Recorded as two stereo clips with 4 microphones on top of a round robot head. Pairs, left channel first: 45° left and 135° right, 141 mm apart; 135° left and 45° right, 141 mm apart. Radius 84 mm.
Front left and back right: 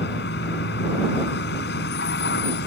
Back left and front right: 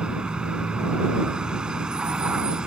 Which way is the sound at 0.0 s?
40° left.